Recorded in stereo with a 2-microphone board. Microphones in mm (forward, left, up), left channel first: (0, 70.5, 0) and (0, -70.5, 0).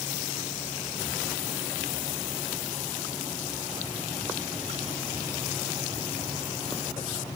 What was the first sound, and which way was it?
Only background noise.